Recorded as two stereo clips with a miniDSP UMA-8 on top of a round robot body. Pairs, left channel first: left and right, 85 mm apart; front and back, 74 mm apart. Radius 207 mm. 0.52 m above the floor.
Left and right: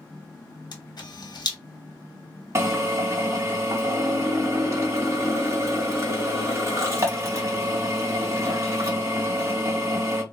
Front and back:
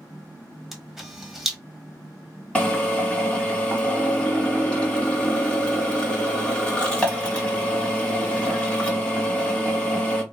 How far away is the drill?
About 1.5 m.